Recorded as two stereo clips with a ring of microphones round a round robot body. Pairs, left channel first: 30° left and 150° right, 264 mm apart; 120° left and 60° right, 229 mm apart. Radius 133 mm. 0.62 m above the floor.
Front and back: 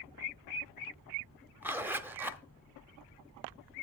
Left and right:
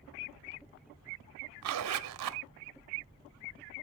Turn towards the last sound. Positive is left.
turn(degrees=-65)